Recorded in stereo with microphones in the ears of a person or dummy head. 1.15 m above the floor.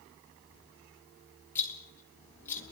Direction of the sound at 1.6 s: 15° left (ahead or behind).